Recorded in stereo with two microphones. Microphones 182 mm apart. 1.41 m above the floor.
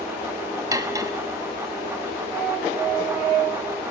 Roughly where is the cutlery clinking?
Centre.